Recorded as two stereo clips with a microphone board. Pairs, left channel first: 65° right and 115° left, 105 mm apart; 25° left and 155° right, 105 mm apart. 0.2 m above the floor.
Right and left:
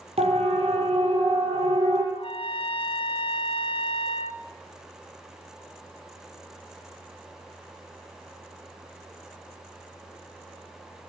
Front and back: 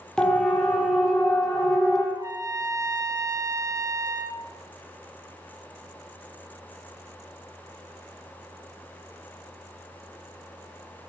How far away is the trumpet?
About 1.9 m.